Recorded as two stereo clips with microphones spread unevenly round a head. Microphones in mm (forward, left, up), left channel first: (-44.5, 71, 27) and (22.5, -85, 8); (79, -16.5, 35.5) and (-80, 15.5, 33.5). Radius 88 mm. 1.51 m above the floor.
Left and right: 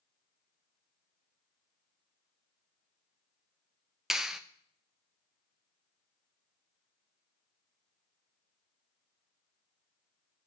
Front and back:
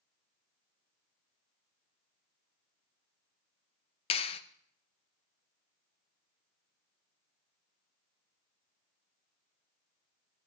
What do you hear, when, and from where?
4.1 s a clap: 30° left, 0.7 m